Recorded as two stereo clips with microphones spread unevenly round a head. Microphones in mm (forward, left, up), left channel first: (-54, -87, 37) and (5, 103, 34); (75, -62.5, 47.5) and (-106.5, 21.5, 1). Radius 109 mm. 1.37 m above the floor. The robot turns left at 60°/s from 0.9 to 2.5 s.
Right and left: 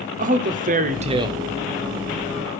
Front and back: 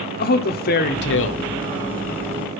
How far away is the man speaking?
About 1.0 m.